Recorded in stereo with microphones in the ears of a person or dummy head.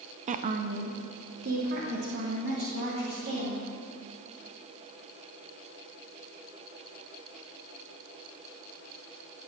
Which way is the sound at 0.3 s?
35° right (ahead or behind).